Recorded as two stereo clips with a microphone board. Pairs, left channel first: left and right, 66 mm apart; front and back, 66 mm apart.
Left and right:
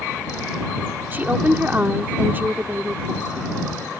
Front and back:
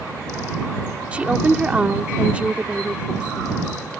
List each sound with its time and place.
1.1 s a woman speaking: 125° right